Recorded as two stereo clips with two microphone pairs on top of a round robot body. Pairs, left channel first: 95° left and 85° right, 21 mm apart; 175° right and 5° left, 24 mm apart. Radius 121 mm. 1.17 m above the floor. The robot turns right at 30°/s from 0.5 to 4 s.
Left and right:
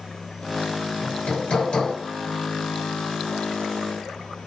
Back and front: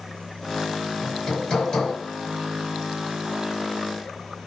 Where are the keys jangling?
I don't hear keys jangling.